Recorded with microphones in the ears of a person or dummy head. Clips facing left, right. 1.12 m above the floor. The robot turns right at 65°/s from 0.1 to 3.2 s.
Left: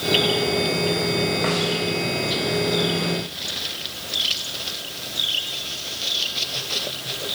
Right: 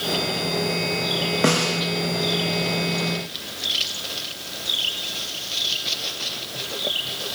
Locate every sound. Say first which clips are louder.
1.4 s a snare drum: right 2 dB; 45° right (ahead or behind), 1.2 m; by 1.8 s 70° right (ahead or behind), 1.2 m